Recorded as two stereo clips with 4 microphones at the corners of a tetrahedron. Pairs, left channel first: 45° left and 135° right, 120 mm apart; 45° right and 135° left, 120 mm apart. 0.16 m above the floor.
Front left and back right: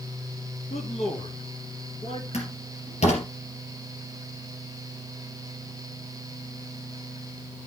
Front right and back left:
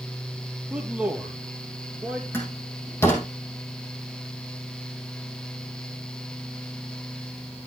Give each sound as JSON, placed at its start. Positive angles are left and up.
{"t": 0.7, "sound": "a man speaking", "azimuth_deg": 55, "distance_m": 2.5}
{"t": 2.3, "sound": "a door slam", "azimuth_deg": 25, "distance_m": 3.5}